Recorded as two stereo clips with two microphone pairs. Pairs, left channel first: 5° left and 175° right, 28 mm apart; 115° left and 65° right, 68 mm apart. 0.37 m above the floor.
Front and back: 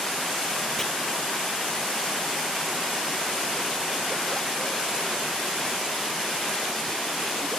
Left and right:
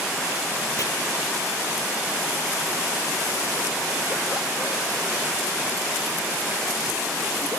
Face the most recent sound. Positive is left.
turn(degrees=80)